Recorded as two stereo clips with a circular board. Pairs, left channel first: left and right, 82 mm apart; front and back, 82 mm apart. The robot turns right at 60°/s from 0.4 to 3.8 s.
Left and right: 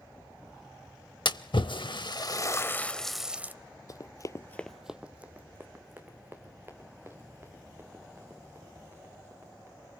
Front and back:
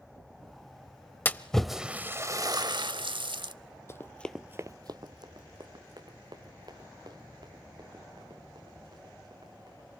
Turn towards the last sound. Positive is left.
turn(degrees=-150)